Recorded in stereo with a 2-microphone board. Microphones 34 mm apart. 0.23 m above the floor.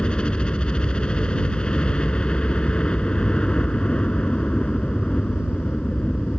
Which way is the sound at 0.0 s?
30° left (ahead or behind).